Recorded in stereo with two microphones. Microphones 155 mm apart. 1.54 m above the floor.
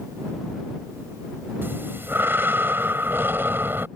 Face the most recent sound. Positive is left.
turn(degrees=-15)  # may be behind; listen again after turning